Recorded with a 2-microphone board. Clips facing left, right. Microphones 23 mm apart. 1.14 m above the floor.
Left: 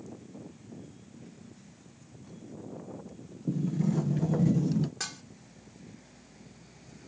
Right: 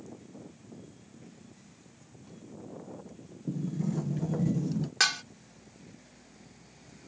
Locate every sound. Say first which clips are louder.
3.5 s a sliding door: left 3 dB; 20° left (ahead or behind)
5.0 s dishes clattering: right 12 dB; 75° right (ahead or behind)